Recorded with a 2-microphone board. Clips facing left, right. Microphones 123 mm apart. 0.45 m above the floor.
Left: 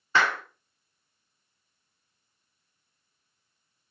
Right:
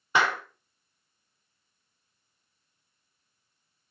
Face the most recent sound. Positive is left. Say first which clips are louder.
# even
turn(degrees=-15)  # may be behind; listen again after turning